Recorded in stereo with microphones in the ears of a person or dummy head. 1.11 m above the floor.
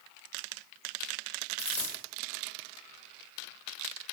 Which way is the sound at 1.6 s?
5° left (ahead or behind).